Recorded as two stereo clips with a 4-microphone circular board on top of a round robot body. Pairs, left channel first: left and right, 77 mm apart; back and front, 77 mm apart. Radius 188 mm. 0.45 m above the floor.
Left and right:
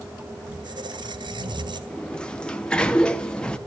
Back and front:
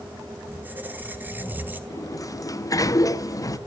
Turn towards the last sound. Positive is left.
turn(degrees=165)